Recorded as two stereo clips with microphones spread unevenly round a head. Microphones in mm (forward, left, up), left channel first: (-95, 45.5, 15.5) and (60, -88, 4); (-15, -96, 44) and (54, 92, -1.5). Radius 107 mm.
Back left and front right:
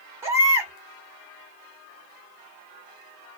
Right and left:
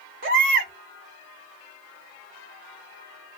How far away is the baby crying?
About 1.6 m.